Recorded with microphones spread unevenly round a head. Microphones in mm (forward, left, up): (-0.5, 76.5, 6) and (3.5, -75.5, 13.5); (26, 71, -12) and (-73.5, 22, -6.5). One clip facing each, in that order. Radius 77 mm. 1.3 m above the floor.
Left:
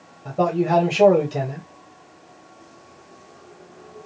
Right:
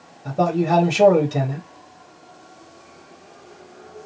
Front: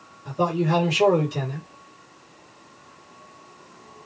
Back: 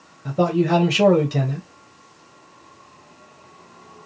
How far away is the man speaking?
About 1.0 m.